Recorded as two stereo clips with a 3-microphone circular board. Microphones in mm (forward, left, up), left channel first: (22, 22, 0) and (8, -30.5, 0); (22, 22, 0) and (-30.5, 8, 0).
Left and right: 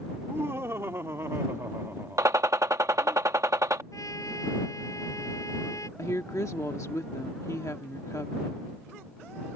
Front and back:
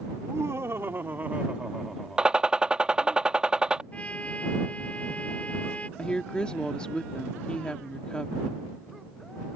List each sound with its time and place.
0.1 s laughter: 145° right; by 3.2 s 35° right
2.2 s a gunshot: 90° right
3.9 s a trumpet: 80° left
6.0 s a woman speaking: 90° left